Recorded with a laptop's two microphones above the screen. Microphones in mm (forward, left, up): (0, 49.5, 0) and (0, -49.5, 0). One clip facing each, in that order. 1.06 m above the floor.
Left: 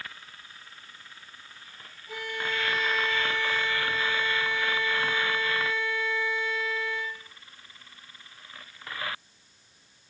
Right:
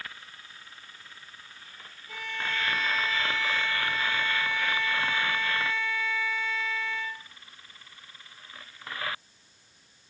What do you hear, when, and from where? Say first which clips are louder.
2.1 s a violin: left 2 dB; 5° left (ahead or behind), 0.9 m